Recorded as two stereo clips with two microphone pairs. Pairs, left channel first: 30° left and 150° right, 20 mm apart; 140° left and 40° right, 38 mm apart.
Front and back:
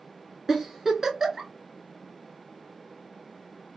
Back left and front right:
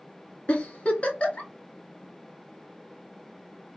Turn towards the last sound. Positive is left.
turn(degrees=150)